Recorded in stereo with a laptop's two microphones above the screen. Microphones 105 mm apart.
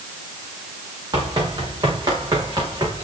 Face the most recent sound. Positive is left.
turn(degrees=-35)  # may be behind; listen again after turning